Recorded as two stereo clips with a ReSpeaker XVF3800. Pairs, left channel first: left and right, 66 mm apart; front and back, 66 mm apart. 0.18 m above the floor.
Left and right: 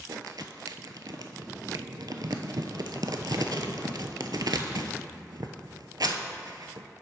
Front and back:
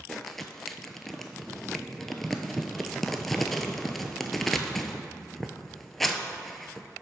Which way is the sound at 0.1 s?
85° right.